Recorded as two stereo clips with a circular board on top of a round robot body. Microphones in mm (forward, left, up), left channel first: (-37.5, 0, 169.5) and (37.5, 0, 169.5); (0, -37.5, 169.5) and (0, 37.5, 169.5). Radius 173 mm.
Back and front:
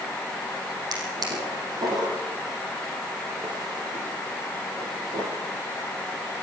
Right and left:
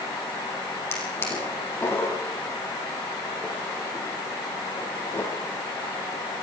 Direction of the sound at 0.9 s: 30° right.